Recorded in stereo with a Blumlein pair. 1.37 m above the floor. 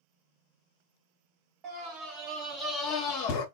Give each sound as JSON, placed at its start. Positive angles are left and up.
{"t": 1.6, "sound": "a scream", "azimuth_deg": -25, "distance_m": 0.9}